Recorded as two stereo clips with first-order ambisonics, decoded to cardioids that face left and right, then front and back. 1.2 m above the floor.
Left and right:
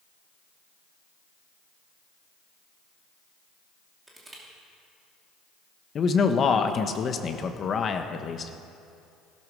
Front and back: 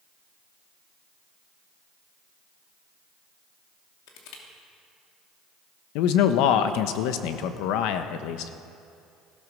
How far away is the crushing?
About 2.5 m.